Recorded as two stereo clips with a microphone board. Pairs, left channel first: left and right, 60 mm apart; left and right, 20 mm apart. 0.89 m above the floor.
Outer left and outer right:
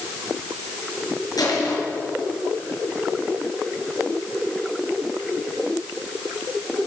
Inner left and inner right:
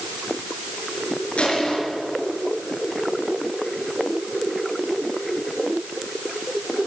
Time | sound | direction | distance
1.4 | crushing | 85° left | 5.5 m